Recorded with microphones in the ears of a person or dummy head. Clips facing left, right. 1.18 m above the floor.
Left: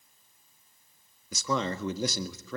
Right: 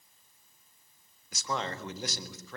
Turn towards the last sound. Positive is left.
turn(degrees=75)  # may be behind; listen again after turning